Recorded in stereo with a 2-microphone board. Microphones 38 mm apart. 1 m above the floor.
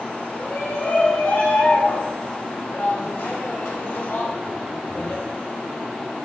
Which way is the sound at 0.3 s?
85° left.